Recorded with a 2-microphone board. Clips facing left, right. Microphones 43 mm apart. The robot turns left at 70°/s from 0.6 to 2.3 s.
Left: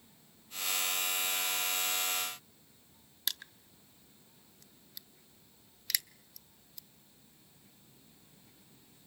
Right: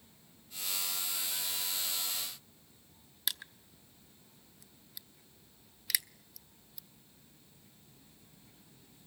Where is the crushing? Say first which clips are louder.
Even; 5° right (ahead or behind), 0.5 m.